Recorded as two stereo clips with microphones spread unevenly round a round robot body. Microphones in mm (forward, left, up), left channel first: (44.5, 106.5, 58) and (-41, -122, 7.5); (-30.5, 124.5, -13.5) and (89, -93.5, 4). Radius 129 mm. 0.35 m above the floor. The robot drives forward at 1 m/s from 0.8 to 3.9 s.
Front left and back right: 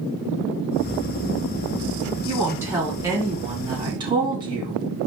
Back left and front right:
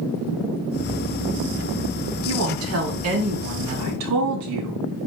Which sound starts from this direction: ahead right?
A woman speaking, at 2.2 s.